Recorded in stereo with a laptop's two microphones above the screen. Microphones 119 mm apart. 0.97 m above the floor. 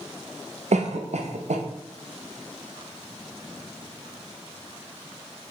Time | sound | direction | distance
0.7 | a cough | 70° right (ahead or behind) | 0.6 m